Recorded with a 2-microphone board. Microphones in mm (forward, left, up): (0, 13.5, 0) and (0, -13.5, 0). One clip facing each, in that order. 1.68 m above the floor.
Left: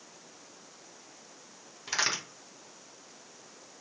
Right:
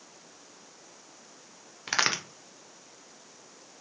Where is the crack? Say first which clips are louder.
Right 3 dB; 35° right (ahead or behind), 0.7 m.